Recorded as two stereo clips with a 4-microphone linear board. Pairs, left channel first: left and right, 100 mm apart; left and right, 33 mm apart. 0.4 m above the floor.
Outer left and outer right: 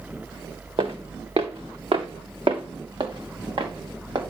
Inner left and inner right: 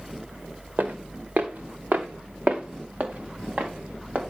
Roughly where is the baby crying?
I don't hear a baby crying.